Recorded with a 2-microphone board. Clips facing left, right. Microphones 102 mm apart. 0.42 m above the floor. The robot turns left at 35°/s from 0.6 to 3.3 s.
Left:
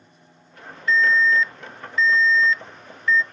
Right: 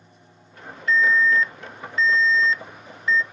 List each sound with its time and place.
0.9 s an alarm: 75° right, 0.5 m; by 3.2 s 155° right, 0.5 m